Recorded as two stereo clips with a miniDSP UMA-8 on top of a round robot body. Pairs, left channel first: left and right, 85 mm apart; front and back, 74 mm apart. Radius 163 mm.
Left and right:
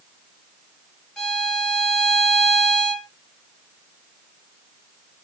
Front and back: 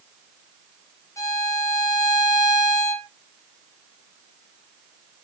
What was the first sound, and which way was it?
A violin, 10° left.